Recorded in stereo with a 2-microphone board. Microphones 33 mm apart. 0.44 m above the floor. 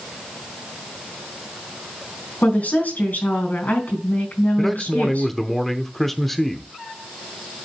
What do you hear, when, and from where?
2.4 s a woman speaking: 60° left (ahead or behind), 3.5 m
4.6 s a man speaking: 10° left (ahead or behind), 0.8 m